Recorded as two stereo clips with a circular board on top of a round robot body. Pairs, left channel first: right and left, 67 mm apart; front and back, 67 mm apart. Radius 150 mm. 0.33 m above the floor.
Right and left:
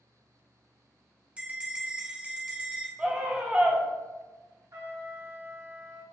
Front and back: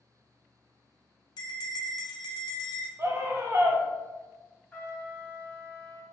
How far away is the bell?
About 0.7 m.